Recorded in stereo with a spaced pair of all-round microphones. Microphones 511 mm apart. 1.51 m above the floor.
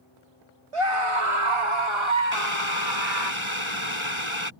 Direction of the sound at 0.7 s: 80° right.